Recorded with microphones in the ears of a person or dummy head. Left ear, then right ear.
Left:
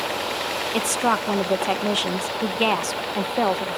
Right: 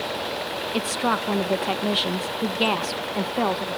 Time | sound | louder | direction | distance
0.7 | a woman speaking | left 2 dB | 20° left (ahead or behind) | ?